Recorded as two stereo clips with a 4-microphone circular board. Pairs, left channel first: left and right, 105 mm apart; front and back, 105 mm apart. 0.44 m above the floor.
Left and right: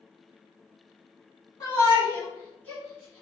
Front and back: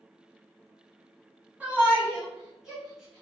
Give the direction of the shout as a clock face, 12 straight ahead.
8 o'clock.